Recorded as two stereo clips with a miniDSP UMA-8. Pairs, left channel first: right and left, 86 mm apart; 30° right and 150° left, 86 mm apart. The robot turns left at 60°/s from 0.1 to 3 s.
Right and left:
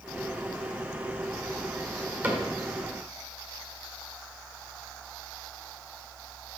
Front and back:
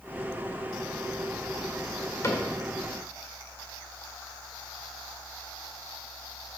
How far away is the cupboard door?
About 1.7 m.